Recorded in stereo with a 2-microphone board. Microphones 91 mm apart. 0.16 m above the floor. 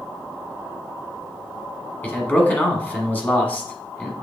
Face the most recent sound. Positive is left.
turn(degrees=20)  # may be behind; listen again after turning